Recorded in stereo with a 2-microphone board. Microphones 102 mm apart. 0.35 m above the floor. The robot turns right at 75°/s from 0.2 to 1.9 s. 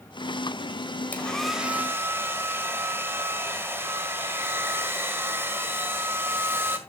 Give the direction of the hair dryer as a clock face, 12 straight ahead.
7 o'clock.